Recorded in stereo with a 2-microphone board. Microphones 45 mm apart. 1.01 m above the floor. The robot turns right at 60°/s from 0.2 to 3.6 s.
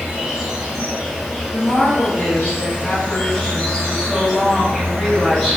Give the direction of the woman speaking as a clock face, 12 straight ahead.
9 o'clock.